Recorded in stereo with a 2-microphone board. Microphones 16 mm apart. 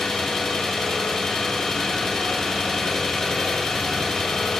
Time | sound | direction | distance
0.0 | an engine running | 40° left (ahead or behind) | 1.5 m